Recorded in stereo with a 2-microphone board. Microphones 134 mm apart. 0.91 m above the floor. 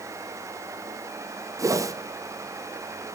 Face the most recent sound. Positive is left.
turn(degrees=-25)  # may be behind; listen again after turning